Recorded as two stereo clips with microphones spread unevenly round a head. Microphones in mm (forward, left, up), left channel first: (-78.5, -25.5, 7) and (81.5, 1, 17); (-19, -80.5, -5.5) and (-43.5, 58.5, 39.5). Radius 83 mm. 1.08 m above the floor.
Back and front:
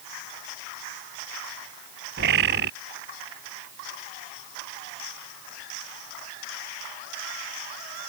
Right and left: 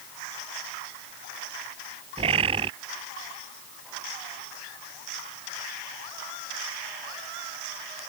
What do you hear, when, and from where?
2.2 s a bird: 40° left